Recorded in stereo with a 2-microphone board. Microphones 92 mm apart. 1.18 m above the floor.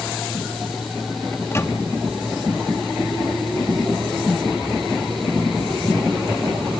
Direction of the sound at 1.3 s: 30° left (ahead or behind).